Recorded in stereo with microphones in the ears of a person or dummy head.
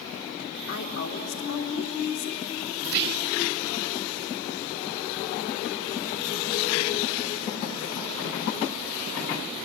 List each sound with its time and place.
0.7 s a woman speaking: 80° left, 3 m
2.8 s whispering: 55° right (ahead or behind), 0.9 m